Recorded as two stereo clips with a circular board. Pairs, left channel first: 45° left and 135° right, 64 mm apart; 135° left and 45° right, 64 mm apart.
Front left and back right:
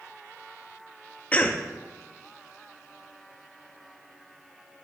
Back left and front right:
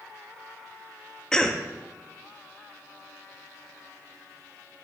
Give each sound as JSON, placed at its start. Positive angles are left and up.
{"t": 1.3, "sound": "a cough", "azimuth_deg": 70, "distance_m": 0.6}